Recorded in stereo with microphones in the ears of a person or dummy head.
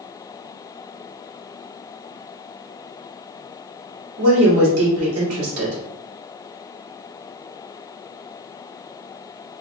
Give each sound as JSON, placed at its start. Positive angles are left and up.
{"t": 4.2, "sound": "a woman speaking", "side_deg": -90, "distance_m": 2.0}